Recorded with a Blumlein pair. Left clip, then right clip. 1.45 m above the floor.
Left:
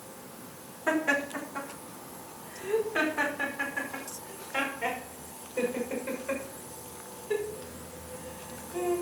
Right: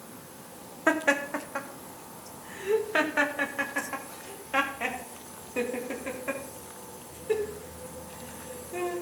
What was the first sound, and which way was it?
Laughter, 25° right.